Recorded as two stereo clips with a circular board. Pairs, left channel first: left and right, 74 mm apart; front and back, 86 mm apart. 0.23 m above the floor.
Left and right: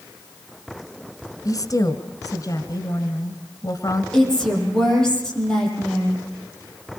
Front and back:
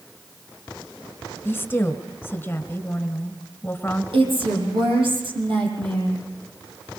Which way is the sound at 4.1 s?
170° left.